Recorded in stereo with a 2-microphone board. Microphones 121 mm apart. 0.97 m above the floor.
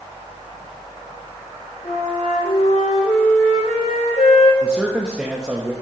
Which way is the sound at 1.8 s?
75° left (ahead or behind).